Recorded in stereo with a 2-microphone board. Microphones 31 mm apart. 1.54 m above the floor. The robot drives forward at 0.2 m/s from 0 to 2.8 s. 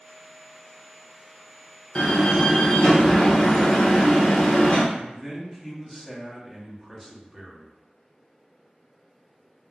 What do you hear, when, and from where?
1.9 s a door slam: 35° left (ahead or behind), 0.7 m; by 4.8 s 40° left (ahead or behind), 0.6 m
4.9 s a man speaking: centre (ahead or behind), 0.8 m